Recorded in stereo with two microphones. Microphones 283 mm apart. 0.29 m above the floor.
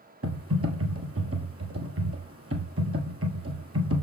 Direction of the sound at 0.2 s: 55° right (ahead or behind).